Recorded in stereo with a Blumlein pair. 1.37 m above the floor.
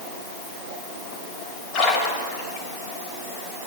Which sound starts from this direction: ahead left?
A splash, at 1.7 s.